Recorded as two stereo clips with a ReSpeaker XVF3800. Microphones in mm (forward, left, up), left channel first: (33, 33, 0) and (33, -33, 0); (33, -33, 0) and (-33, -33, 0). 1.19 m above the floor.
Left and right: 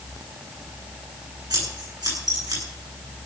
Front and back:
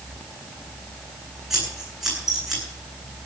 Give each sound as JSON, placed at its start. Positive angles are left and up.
{"t": 1.5, "sound": "scissors", "azimuth_deg": -95, "distance_m": 10.0}